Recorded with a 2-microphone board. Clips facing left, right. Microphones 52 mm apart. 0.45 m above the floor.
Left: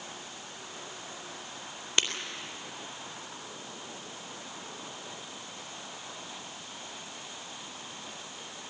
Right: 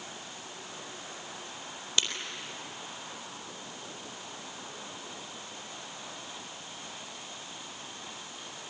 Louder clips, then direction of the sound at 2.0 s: Left 2 dB; 35° left (ahead or behind).